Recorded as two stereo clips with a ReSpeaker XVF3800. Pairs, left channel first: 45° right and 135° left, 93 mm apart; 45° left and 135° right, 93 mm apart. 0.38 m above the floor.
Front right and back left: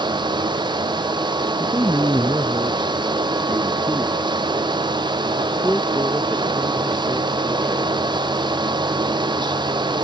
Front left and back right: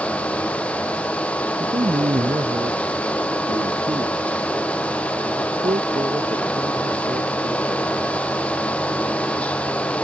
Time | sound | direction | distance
1.6 | a man speaking | 165° right | ?